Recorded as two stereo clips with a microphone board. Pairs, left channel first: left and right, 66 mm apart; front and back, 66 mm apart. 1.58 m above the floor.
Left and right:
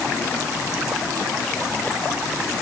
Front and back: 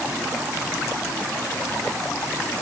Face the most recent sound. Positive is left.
No sound to turn to.